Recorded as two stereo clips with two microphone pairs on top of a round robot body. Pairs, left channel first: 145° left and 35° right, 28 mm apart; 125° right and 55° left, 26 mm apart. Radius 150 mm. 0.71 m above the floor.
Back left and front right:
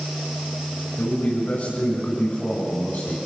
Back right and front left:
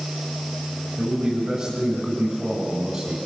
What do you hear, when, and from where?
1.0 s a man speaking: 100° left, 6.5 m; by 3.1 s 95° left, 5.5 m